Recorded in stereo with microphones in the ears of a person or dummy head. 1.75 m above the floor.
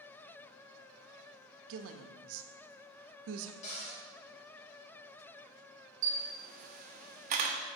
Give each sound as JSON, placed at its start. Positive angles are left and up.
{"t": 1.7, "sound": "a woman speaking", "side_deg": -70, "distance_m": 0.7}
{"t": 3.6, "sound": "a cupboard door", "side_deg": 45, "distance_m": 2.0}
{"t": 6.0, "sound": "a camera shutter", "side_deg": -40, "distance_m": 0.7}